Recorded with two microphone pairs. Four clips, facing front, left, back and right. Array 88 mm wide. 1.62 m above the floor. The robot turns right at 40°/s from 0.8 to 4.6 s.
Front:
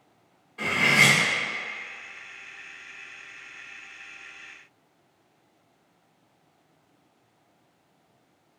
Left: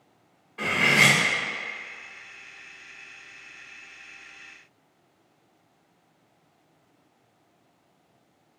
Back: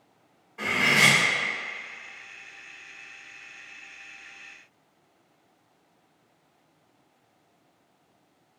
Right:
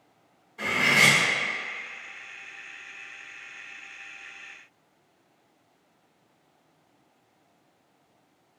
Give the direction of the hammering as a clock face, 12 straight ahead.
No hammering in this recording.